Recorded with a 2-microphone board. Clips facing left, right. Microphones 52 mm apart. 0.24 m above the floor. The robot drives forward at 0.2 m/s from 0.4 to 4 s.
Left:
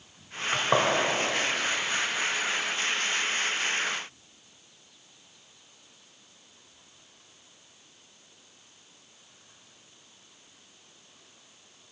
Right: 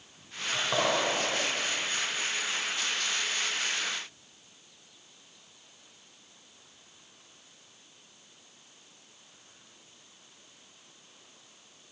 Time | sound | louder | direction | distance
0.5 | a gunshot | left 4 dB | 50° left (ahead or behind) | 1.5 m